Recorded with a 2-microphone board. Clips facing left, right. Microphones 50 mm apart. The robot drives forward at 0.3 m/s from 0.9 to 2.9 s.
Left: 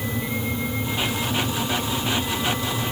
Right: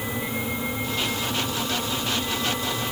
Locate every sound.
Only background noise.